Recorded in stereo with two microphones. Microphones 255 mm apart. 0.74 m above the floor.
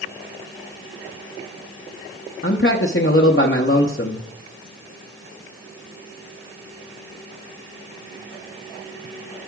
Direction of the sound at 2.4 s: 45° left (ahead or behind).